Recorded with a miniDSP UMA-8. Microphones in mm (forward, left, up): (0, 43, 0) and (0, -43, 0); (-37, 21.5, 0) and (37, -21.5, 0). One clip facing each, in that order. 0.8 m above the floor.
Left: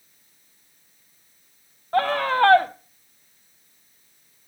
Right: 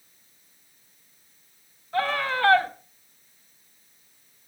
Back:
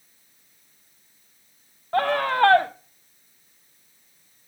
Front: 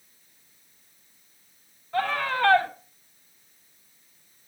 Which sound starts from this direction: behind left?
A scream, at 1.9 s.